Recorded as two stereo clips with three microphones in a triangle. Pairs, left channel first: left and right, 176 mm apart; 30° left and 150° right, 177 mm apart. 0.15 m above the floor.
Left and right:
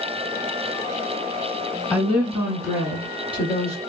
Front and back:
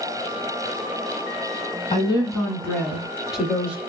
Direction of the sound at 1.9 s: Straight ahead.